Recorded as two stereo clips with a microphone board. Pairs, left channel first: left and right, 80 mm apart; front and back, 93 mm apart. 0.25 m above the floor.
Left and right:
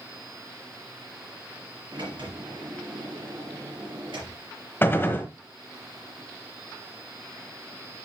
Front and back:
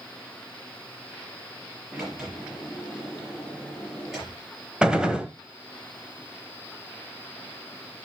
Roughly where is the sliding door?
Right.